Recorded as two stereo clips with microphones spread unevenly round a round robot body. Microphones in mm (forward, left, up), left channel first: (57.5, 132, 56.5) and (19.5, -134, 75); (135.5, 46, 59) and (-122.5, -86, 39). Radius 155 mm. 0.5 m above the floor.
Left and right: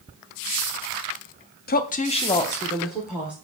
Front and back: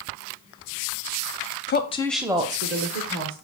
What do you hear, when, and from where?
1.7 s a woman speaking: 60° left, 0.8 m; by 3.3 s 175° left, 1.5 m